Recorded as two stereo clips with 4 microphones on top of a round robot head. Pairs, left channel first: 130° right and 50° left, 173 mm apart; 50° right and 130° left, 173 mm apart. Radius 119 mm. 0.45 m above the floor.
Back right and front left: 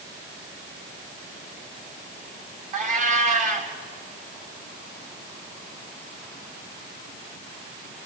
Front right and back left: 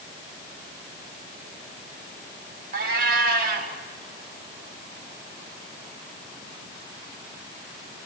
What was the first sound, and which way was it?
A cat meowing, 95° left.